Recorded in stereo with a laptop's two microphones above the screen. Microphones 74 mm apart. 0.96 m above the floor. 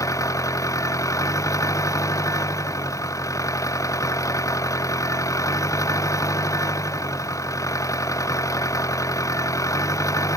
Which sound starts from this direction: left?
An engine running, at 0.0 s.